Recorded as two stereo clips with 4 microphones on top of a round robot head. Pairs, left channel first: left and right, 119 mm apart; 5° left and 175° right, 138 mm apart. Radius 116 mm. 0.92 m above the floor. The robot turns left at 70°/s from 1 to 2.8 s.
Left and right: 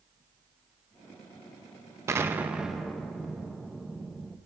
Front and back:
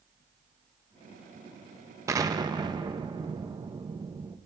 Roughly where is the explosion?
Behind right.